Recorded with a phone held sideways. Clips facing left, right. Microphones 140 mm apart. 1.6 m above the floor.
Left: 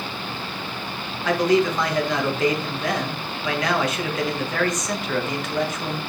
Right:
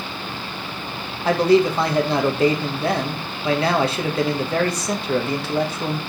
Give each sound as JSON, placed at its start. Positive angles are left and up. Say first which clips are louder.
{"t": 1.2, "sound": "a man speaking", "louder": "right 3 dB", "side_deg": -30, "distance_m": 1.3}